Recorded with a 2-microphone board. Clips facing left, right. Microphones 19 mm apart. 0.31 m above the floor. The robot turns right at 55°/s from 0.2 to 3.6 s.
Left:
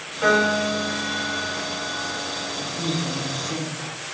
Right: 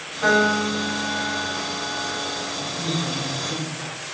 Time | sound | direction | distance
0.2 | a piano | 20° left | 4.5 m
2.6 | a woman speaking | 85° left | 3 m